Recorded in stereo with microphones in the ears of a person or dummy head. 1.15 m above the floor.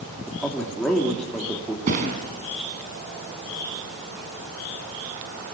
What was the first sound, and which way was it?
A man speaking, 10° left (ahead or behind).